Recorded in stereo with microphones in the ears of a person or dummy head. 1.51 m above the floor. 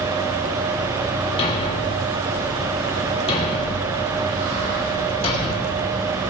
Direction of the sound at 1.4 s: 30° left (ahead or behind).